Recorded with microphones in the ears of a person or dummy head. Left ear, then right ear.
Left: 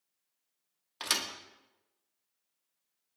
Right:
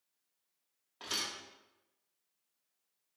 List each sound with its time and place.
1.0 s a thud: 50° left (ahead or behind), 1.8 m